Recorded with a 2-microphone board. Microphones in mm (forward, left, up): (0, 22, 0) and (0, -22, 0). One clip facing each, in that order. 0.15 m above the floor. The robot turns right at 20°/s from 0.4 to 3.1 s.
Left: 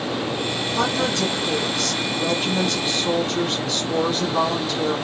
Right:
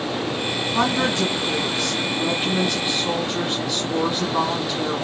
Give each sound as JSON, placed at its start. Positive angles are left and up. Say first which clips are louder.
{"t": 0.7, "sound": "a woman speaking", "louder": "right 2 dB", "side_deg": -25, "distance_m": 1.8}